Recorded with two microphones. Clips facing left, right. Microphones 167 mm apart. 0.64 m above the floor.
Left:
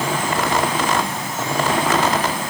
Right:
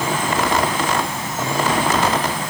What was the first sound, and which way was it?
Only background noise.